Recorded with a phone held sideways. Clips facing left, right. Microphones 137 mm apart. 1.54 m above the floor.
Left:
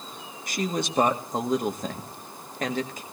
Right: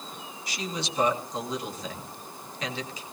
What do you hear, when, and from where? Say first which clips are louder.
0.5 s a man speaking: left 6 dB; 50° left (ahead or behind), 1.8 m